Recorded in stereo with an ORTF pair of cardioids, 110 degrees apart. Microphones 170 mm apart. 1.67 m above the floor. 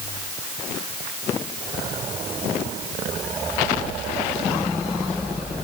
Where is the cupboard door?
I don't hear a cupboard door.